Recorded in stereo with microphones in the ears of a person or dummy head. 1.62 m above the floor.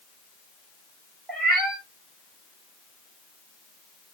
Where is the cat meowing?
5° left (ahead or behind), 4.5 m.